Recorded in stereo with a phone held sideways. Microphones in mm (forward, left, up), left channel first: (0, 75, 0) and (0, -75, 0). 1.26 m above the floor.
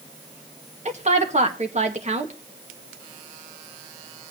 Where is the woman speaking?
50° right (ahead or behind), 1.9 m.